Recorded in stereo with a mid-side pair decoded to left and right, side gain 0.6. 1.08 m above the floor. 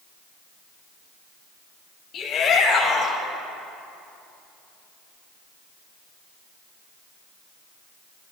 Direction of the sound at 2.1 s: 45° left.